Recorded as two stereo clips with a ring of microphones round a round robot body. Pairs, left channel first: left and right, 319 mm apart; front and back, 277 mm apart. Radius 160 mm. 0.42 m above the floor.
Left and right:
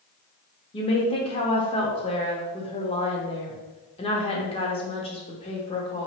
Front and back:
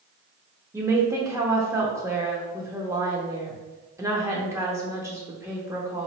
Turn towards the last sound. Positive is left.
turn(degrees=120)